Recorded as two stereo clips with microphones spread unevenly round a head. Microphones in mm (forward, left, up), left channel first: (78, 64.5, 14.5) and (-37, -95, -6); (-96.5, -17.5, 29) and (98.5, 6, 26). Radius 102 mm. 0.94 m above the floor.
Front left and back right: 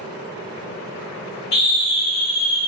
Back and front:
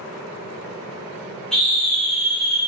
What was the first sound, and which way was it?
A scream, 100° left.